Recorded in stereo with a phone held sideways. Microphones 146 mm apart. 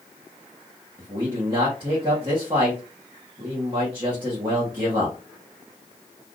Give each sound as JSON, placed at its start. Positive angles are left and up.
{"t": 1.0, "sound": "a man speaking", "side_deg": -30, "distance_m": 1.1}